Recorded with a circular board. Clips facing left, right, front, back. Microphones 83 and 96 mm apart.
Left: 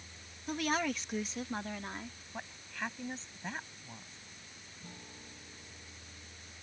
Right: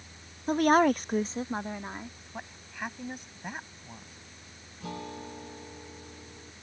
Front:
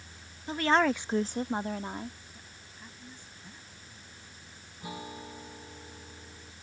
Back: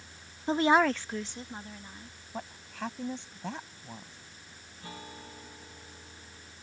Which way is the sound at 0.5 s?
130° right.